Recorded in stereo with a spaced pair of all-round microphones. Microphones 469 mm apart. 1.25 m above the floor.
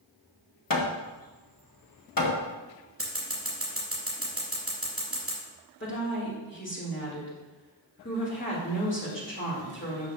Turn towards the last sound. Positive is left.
turn(degrees=25)  # may be behind; listen again after turning